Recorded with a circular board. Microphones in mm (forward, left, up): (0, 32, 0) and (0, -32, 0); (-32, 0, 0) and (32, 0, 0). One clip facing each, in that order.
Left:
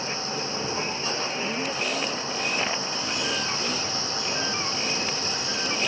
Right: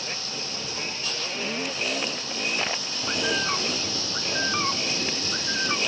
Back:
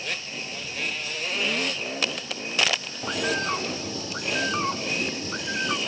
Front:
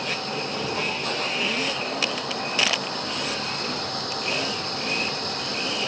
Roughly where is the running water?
Ahead left.